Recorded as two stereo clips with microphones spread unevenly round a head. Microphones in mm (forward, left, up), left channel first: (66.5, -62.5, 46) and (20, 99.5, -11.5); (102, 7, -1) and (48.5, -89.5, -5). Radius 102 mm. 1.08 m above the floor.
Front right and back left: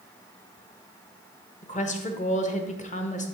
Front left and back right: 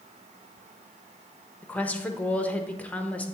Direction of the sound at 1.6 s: 20° right.